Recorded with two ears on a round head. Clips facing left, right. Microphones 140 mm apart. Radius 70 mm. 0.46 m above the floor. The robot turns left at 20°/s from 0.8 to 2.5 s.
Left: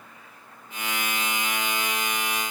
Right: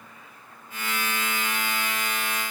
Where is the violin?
No violin in this recording.